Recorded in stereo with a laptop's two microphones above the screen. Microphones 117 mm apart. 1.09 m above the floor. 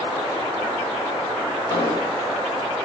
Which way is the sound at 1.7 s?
30° left (ahead or behind).